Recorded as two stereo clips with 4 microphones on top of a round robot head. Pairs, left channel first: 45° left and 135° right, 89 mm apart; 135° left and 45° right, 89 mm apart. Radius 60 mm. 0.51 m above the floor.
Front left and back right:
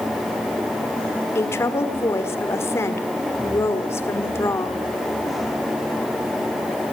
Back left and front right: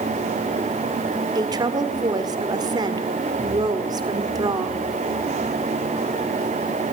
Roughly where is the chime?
No chime in this recording.